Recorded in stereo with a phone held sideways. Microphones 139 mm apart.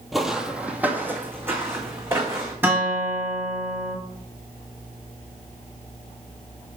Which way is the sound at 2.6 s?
15° right (ahead or behind).